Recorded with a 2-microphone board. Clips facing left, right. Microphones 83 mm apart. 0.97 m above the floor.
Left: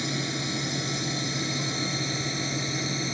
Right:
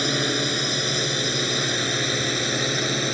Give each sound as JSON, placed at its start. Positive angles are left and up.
{"t": 0.0, "sound": "a drone", "side_deg": -65}